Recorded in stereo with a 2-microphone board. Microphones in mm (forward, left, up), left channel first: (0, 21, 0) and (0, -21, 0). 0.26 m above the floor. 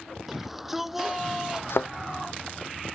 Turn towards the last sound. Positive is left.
turn(degrees=85)